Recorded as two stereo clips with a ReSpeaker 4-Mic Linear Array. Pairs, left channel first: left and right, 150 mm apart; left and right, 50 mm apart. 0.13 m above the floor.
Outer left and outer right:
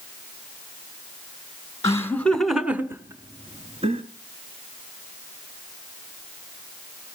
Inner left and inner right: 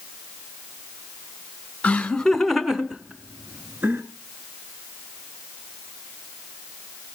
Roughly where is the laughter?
Left.